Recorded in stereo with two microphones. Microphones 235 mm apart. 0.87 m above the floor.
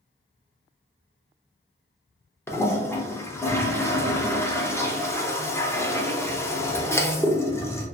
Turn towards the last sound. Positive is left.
turn(degrees=10)  # may be behind; listen again after turning